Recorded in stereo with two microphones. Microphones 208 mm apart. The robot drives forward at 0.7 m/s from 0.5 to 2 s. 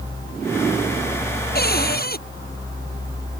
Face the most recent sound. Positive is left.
turn(degrees=50)  # may be behind; listen again after turning